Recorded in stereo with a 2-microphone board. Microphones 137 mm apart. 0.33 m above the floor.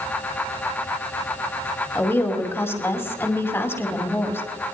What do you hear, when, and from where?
1.9 s a woman speaking: 15° left (ahead or behind), 2.5 m